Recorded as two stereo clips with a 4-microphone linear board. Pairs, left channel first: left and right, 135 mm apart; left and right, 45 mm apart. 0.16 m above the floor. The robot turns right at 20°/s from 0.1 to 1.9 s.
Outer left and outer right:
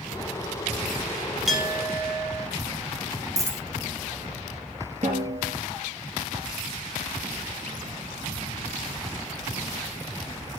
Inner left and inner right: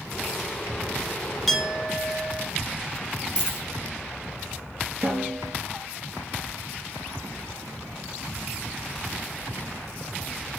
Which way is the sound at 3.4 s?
20° right (ahead or behind).